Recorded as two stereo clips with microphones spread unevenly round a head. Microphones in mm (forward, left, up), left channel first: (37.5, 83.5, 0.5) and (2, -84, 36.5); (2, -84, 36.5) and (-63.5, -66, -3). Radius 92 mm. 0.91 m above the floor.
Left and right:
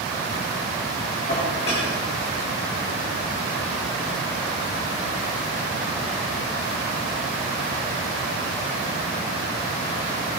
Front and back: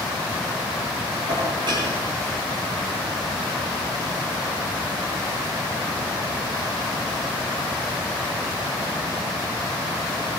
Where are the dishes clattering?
135° left, 9 m.